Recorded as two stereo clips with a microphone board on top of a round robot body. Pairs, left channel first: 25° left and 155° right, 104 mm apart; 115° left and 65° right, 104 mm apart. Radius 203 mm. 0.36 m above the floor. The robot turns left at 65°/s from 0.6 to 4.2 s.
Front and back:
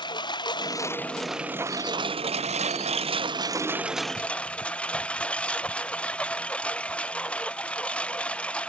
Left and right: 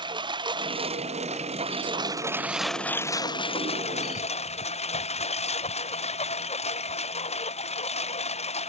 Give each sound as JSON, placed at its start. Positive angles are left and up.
{"t": 0.0, "sound": "a lawn mower", "azimuth_deg": -25}